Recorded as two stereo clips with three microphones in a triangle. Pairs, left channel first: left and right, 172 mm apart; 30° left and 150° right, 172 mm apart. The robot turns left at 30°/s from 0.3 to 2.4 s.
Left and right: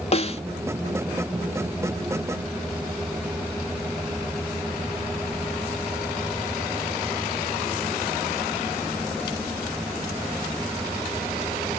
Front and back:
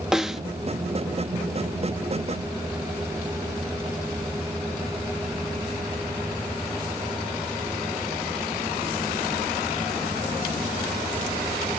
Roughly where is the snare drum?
Behind left.